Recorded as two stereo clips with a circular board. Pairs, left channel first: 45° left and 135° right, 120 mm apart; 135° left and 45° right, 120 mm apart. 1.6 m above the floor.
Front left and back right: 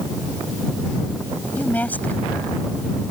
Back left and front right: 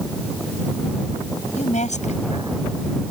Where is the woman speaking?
120° left.